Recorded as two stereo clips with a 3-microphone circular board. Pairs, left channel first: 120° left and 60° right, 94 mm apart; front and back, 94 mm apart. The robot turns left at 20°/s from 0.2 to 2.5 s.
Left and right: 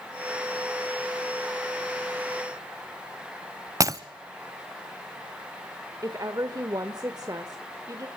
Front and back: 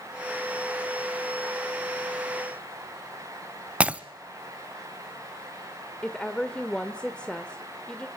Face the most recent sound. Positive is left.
turn(degrees=-75)